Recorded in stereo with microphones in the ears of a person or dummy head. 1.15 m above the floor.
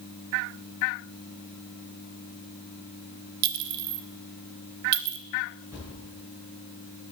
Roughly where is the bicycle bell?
No bicycle bell in this recording.